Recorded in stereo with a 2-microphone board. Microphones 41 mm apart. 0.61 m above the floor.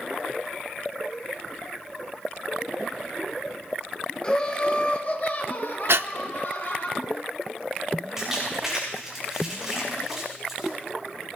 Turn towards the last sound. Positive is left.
turn(degrees=-5)  # may be behind; listen again after turning